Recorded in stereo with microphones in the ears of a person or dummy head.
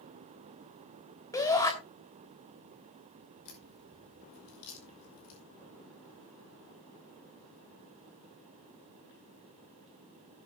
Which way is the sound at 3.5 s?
80° left.